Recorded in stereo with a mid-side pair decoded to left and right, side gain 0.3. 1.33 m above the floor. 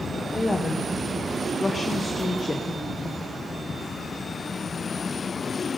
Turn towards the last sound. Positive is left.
turn(degrees=40)